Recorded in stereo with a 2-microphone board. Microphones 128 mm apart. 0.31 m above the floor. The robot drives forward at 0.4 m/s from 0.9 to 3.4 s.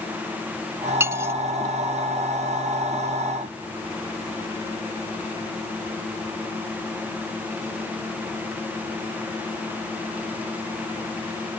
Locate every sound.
1.0 s cutlery clinking: 20° right (ahead or behind)